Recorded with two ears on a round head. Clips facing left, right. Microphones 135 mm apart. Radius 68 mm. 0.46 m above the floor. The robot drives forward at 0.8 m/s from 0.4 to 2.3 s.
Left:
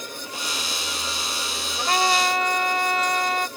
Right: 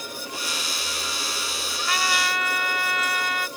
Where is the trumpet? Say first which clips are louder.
Left 5 dB; 35° left (ahead or behind); by 3.5 s 30° left (ahead or behind).